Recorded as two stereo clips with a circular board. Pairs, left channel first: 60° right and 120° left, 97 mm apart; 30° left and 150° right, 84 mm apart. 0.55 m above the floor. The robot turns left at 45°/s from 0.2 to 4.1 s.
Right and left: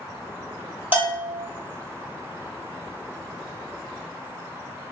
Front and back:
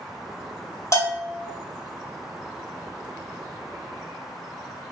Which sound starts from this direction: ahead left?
A bell, at 0.9 s.